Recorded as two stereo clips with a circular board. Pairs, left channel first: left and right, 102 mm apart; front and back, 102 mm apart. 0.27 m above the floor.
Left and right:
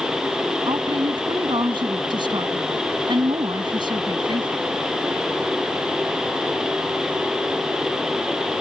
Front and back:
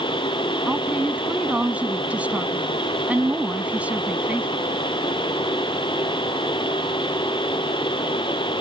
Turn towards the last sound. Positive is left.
turn(degrees=-105)